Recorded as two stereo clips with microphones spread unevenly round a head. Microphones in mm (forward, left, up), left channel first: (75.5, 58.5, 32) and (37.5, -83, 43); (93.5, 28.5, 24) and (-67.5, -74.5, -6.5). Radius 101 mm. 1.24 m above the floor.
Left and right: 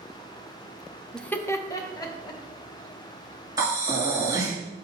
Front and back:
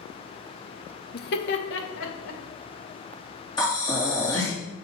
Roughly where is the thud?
No thud in this recording.